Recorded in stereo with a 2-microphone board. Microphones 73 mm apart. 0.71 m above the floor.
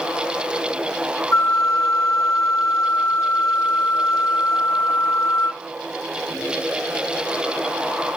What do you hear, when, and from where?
1.3 s a flute: 50° left (ahead or behind), 2.5 m